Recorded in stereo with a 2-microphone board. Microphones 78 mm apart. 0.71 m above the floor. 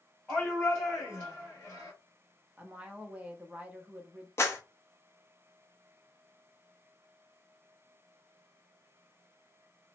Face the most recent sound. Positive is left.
turn(degrees=35)  # may be behind; listen again after turning